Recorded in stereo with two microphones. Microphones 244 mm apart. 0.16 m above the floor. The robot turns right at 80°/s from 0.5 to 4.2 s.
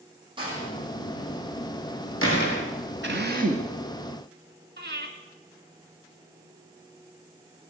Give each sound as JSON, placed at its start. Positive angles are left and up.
{"t": 0.4, "sound": "a door slam", "side_deg": -20, "distance_m": 4.5}
{"t": 3.0, "sound": "a drill", "azimuth_deg": -80, "distance_m": 1.6}
{"t": 4.8, "sound": "breathing", "side_deg": -45, "distance_m": 2.0}